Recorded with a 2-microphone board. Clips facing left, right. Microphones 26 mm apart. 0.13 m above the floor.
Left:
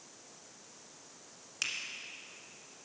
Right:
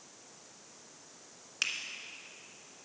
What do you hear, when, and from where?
1.6 s a finger snap: 15° right (ahead or behind), 1.3 m